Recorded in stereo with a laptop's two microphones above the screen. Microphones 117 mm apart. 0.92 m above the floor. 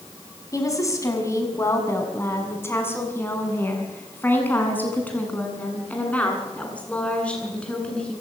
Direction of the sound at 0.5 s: 25° left (ahead or behind).